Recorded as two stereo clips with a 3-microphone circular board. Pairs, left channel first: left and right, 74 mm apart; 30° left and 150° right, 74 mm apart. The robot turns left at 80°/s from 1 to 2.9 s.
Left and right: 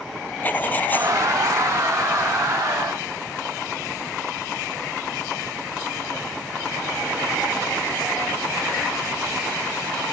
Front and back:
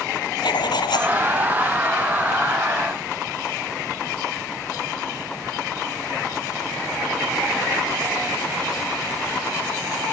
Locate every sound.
0.4 s writing: 25° left; by 1.2 s 10° left